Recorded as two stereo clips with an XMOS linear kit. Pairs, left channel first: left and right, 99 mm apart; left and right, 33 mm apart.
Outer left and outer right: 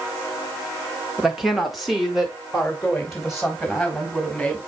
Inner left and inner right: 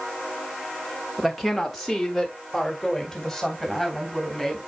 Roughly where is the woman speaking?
Centre.